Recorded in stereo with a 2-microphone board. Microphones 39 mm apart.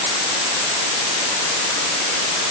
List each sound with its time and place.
Only background noise.